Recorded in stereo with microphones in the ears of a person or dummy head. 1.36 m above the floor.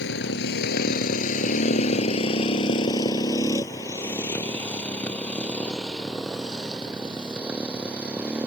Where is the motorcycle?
65° left (ahead or behind); by 8.5 s 5° right (ahead or behind).